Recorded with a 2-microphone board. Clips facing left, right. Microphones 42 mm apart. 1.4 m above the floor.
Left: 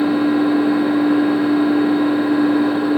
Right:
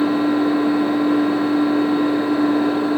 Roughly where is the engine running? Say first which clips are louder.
Left 2 dB; centre.